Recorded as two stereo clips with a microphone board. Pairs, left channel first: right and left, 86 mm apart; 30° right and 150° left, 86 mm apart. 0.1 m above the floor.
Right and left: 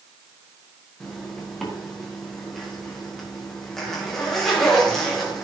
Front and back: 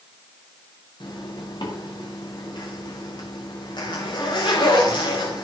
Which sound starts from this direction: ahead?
A zipper, at 1.0 s.